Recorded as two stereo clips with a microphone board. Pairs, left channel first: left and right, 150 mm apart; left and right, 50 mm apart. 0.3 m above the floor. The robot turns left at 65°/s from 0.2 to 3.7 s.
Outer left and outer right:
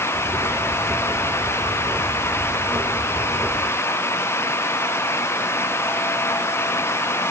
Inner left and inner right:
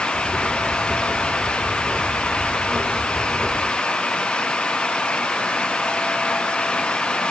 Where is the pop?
No pop in this recording.